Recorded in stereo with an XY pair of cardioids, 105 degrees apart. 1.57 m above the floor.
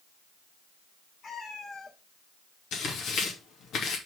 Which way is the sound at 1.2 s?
50° left.